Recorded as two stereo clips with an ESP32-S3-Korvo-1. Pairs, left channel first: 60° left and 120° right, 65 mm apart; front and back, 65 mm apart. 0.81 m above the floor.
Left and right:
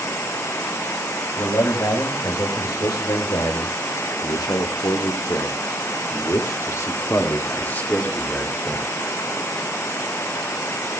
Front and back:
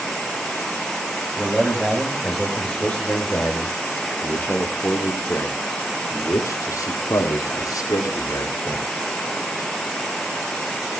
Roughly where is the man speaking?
Left.